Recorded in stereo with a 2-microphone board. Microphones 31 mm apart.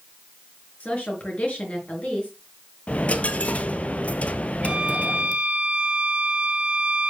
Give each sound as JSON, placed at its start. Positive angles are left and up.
{"t": 0.8, "sound": "a woman speaking", "side_deg": 50, "distance_m": 5.0}
{"t": 2.9, "sound": "a dropped coin", "side_deg": 55, "distance_m": 1.0}
{"t": 4.6, "sound": "a violin", "side_deg": -40, "distance_m": 2.0}